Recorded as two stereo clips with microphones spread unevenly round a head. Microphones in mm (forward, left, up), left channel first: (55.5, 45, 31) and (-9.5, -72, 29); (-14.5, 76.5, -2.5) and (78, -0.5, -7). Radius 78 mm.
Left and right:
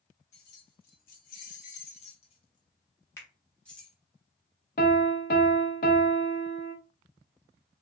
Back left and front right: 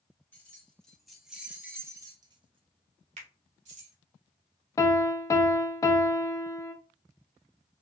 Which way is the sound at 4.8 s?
80° left.